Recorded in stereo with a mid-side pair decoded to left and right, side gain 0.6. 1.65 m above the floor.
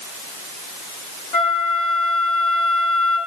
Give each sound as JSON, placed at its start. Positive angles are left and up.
{"t": 1.3, "sound": "a flute", "azimuth_deg": 65, "distance_m": 4.0}